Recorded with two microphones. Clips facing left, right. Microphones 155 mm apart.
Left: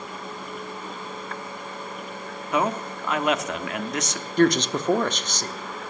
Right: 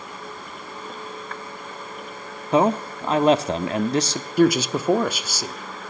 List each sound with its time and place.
2.5 s a man speaking: 35° right (ahead or behind), 0.8 m
4.4 s a man speaking: 10° right (ahead or behind), 0.8 m